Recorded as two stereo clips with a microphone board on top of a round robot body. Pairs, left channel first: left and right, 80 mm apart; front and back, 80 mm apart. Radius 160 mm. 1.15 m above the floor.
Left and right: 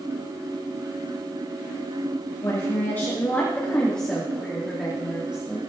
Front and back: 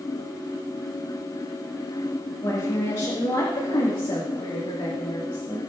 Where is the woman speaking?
40° left, 2 m; by 5.6 s 15° right, 2.5 m.